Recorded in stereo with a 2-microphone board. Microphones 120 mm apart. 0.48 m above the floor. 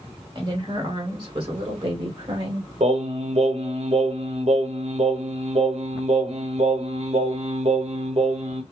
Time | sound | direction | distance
0.3 | a woman speaking | 35° right (ahead or behind) | 1.4 m
2.8 | singing | 65° right (ahead or behind) | 1.0 m